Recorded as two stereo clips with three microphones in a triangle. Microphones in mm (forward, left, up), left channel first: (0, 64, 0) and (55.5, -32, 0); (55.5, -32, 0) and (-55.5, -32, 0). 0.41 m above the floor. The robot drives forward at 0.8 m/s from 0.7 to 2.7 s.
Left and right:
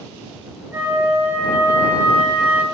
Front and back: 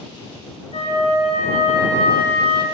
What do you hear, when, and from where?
0.7 s a flute: 10° left, 3.5 m; by 2.6 s 15° left, 2.0 m